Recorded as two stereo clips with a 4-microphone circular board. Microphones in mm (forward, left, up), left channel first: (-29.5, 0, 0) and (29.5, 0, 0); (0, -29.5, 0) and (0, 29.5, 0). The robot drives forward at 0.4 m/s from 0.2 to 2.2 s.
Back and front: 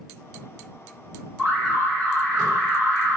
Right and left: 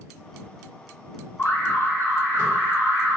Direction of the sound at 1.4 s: 120° right.